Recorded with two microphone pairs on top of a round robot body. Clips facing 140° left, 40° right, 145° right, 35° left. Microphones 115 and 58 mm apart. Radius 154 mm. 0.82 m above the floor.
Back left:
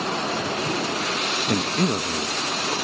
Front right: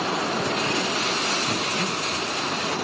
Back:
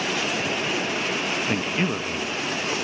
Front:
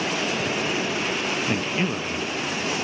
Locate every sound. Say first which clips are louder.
1.5 s a man speaking: back left 4 dB, even; 140° left, 1.3 m